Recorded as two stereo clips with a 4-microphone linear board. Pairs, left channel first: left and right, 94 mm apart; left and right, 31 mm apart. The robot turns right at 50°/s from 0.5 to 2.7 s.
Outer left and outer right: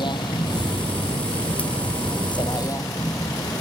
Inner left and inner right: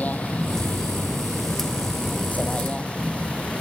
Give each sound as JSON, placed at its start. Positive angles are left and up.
{"t": 0.0, "sound": "a vehicle", "side_deg": 55}